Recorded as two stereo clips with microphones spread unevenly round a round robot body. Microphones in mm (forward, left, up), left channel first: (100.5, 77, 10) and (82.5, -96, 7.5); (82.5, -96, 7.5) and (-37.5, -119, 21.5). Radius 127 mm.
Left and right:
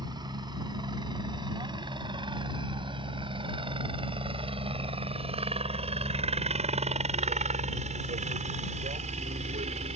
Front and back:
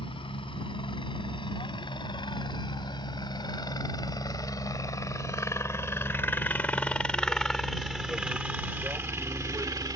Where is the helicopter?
30° right; by 10.0 s 130° right.